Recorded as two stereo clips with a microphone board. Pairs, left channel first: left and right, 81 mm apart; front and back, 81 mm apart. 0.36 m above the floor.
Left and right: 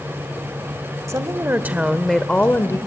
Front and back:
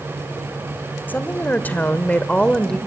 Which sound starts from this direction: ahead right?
A woman speaking, at 1.1 s.